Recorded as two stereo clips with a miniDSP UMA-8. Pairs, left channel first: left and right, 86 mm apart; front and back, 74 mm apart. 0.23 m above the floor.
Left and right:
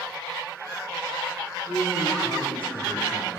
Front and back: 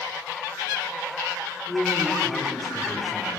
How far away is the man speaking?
About 9.5 m.